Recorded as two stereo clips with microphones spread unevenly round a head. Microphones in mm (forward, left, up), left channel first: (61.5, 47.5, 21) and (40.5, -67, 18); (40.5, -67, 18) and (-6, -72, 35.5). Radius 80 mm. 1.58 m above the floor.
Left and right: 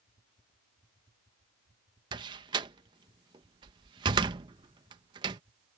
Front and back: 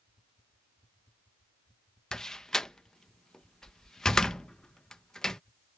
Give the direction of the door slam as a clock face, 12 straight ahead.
3 o'clock.